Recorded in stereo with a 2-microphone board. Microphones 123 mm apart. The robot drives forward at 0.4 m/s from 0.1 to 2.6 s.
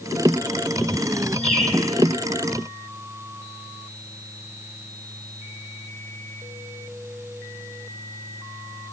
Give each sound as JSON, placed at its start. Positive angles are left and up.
{"t": 1.4, "sound": "a bird", "side_deg": 70, "distance_m": 3.5}